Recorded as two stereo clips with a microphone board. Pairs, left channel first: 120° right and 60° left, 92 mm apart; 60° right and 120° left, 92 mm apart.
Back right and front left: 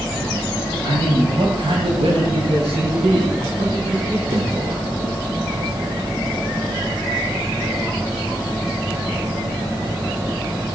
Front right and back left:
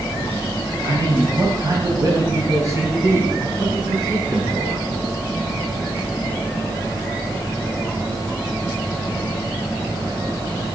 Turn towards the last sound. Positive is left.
turn(degrees=55)